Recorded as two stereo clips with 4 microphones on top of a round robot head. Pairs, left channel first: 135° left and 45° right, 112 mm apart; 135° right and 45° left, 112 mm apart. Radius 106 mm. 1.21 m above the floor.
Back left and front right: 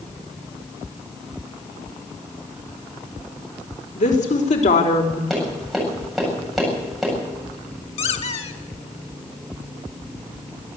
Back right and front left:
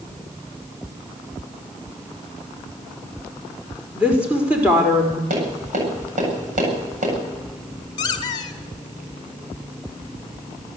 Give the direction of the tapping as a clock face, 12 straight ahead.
10 o'clock.